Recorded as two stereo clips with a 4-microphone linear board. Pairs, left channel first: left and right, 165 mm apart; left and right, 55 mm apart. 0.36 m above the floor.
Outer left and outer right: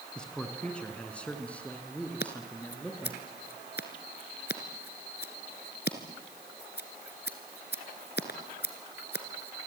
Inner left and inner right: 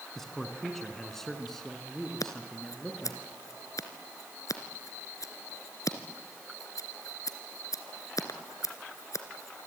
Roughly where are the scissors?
Left.